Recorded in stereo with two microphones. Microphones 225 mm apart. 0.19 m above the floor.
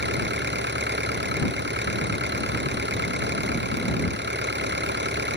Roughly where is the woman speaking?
I don't hear a woman speaking.